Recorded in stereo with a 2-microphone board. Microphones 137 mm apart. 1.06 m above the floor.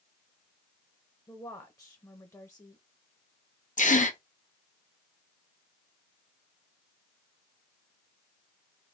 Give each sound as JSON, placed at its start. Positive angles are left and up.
{"t": 1.3, "sound": "a woman speaking", "side_deg": 25, "distance_m": 0.8}
{"t": 3.8, "sound": "a gasp", "side_deg": 65, "distance_m": 0.9}